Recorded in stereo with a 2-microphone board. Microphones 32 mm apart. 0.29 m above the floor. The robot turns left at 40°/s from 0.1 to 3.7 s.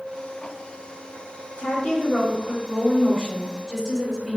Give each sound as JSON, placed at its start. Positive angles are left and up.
{"t": 1.6, "sound": "a woman speaking", "azimuth_deg": 65, "distance_m": 1.0}